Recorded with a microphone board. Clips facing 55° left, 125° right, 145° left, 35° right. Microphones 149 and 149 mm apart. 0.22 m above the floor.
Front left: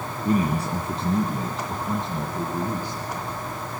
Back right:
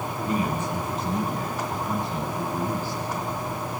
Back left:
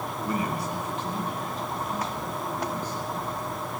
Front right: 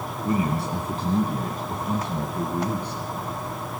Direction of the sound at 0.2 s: 30° left.